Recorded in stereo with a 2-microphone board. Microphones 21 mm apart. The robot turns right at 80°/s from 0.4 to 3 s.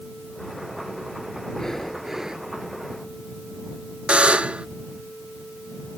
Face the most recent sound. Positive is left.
turn(degrees=-65)  # may be behind; listen again after turning